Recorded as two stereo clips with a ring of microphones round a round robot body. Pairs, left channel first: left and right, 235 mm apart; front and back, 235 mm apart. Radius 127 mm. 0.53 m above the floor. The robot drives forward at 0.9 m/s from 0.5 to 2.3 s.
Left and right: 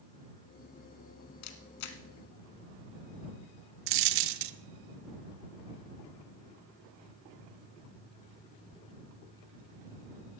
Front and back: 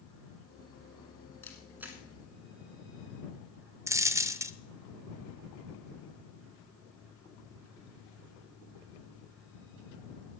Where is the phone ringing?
No phone ringing in this recording.